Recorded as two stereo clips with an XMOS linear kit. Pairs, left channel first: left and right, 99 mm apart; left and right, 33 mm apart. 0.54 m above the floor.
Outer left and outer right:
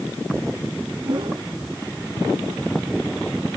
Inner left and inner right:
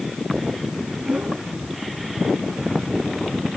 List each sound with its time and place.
1.0 s a whoosh: 50° right (ahead or behind)